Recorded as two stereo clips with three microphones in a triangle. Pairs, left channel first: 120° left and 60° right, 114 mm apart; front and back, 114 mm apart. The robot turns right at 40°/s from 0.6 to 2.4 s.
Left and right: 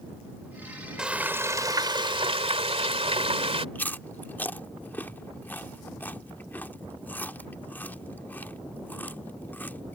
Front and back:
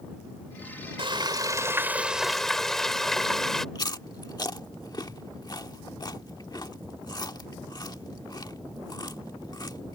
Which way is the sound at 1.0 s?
145° right.